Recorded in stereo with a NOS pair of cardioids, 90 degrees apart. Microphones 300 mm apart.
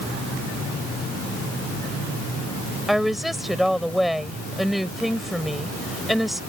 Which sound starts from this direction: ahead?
A woman speaking, at 2.9 s.